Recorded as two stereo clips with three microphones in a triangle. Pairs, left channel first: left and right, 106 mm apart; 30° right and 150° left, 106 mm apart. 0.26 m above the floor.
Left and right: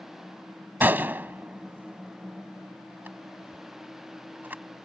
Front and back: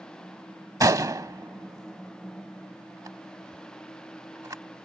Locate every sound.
0.8 s a gunshot: 155° right